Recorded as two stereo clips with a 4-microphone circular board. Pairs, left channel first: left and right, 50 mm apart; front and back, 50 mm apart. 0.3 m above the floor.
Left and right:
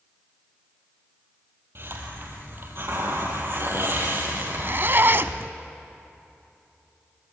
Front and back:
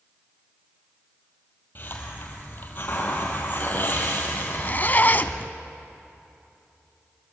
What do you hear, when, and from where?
1.8 s a hiss: 50° right, 4 m
4.3 s a zipper: 50° right, 0.8 m